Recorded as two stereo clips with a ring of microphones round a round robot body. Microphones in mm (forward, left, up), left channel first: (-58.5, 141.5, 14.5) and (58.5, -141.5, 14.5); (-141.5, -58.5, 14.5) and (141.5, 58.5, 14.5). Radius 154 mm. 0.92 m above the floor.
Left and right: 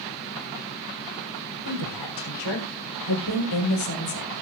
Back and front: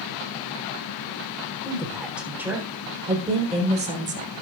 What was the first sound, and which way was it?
A woman speaking, 115° left.